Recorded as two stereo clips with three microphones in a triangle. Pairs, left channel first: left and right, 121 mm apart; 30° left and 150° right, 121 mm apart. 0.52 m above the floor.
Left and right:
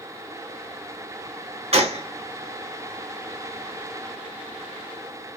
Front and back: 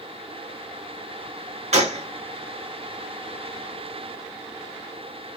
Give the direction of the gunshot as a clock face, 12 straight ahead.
4 o'clock.